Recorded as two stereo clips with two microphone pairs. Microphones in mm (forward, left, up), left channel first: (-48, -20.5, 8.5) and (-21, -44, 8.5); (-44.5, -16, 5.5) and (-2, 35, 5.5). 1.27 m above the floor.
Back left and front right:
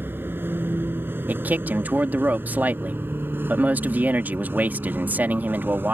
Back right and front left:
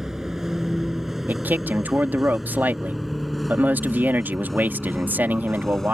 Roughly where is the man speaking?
Ahead.